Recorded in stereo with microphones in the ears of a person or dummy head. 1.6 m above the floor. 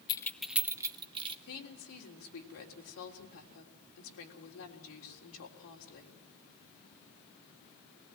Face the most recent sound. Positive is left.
turn(degrees=75)  # may be behind; listen again after turning